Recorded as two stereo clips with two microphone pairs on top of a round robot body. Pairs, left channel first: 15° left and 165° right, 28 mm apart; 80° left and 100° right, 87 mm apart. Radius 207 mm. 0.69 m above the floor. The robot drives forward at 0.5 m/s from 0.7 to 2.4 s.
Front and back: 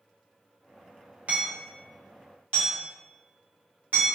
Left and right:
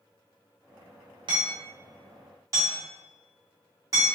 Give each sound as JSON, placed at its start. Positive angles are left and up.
{"t": 1.3, "sound": "hammering", "azimuth_deg": -135, "distance_m": 0.5}